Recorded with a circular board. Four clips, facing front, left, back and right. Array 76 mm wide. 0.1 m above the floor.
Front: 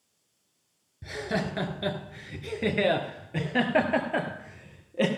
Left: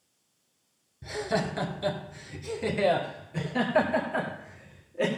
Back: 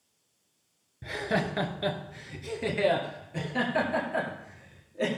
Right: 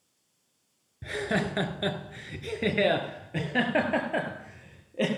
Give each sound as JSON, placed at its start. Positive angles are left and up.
{"t": 1.0, "sound": "laughter", "azimuth_deg": -125, "distance_m": 1.5}